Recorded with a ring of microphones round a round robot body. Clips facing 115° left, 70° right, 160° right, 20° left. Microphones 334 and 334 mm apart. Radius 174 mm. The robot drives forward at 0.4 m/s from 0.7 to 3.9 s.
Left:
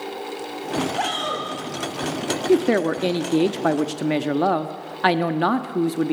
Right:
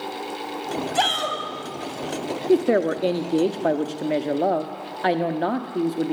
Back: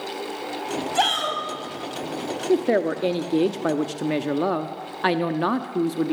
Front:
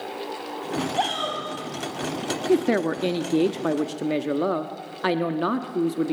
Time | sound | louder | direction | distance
0.9 | a shout | even, back 1 dB | 95° right | 5 m
2.5 | a woman speaking | even, even | 50° left | 1.0 m